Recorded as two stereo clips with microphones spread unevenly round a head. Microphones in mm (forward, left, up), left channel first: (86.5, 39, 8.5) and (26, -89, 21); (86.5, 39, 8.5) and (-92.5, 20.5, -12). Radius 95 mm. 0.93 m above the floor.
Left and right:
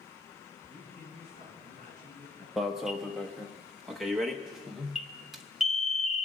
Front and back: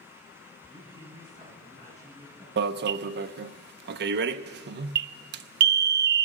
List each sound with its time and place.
0.7 s a man speaking: 120° left, 9.5 m; by 2.5 s 115° left, 12 m
2.6 s an alarm: 155° left, 0.6 m